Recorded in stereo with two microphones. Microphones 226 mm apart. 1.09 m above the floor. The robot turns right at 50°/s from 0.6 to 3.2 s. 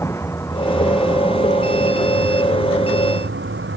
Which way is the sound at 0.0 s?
170° left.